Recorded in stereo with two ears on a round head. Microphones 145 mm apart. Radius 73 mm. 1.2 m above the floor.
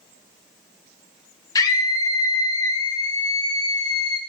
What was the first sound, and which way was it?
A scream, 25° left (ahead or behind).